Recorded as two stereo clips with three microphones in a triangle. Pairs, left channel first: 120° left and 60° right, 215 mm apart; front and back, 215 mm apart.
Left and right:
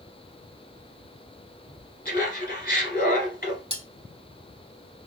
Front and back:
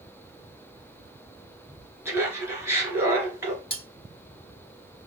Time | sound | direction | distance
2.0 | laughter | 105° left | 1.8 m
3.7 | cutlery clinking | 10° right | 1.3 m